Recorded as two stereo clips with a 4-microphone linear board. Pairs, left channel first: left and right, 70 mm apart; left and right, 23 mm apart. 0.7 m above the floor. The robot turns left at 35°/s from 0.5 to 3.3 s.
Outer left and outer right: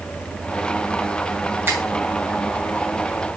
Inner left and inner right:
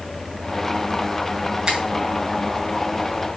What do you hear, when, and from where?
1.7 s a finger snap: 30° right (ahead or behind), 5.5 m; by 1.8 s 25° right (ahead or behind), 5.5 m